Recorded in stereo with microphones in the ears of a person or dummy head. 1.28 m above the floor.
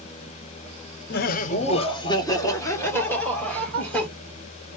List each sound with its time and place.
1.1 s laughter: 55° left (ahead or behind), 0.5 m; by 4.1 s 5° left (ahead or behind), 1.9 m